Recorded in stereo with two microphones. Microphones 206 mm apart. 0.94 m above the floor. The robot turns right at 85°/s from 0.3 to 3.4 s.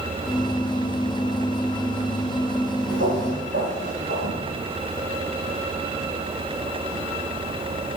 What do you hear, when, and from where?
2.9 s footsteps: 65° right (ahead or behind), 2 m; by 4.4 s 70° right (ahead or behind), 3 m